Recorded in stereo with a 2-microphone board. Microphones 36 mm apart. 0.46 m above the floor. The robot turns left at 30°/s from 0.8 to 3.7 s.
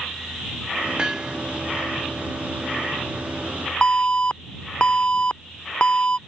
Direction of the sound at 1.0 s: 25° right (ahead or behind).